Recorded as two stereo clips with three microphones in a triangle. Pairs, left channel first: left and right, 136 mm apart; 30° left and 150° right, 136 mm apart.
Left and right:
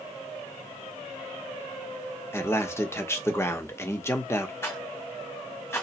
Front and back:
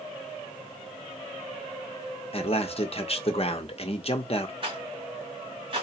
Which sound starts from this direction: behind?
A rattle, at 4.6 s.